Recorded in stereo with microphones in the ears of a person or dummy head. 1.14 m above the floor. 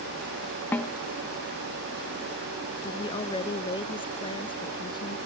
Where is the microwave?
No microwave in this recording.